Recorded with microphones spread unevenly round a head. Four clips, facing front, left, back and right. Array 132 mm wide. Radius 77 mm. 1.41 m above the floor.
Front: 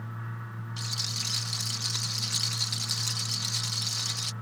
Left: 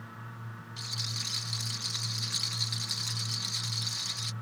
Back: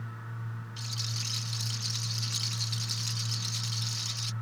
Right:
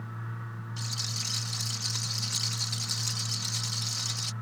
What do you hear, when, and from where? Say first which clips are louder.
0.8 s a rattle: right 2 dB, front 1 dB; 30° right